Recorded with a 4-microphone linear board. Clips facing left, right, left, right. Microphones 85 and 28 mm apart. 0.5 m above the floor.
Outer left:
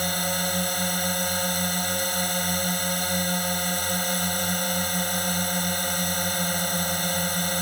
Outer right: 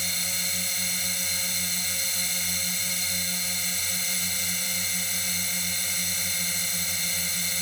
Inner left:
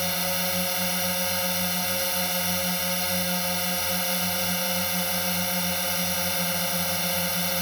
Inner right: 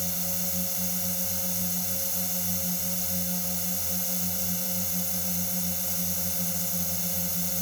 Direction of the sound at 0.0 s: 50° left (ahead or behind).